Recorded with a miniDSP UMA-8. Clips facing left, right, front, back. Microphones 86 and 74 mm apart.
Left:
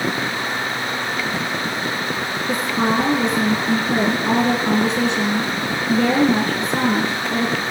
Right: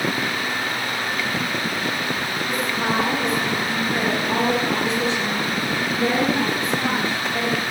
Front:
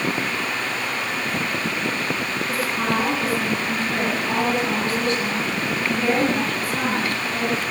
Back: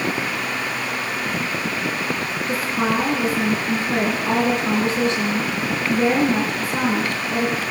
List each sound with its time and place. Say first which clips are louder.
2.5 s a woman speaking: left 4 dB, back 3 dB; 115° left, 6 m